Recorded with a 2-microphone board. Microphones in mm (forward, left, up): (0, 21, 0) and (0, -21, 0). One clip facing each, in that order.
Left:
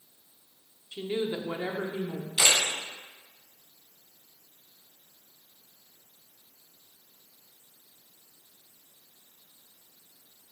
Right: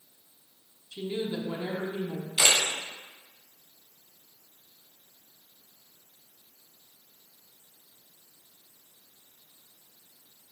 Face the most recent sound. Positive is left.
turn(degrees=-15)  # may be behind; listen again after turning